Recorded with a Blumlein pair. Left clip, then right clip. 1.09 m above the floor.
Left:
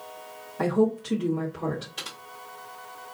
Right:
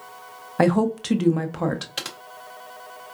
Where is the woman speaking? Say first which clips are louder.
Right 4 dB; 35° right, 0.8 m.